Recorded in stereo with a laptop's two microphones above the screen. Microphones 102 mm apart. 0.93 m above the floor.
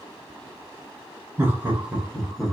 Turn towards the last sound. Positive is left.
turn(degrees=5)  # may be behind; listen again after turning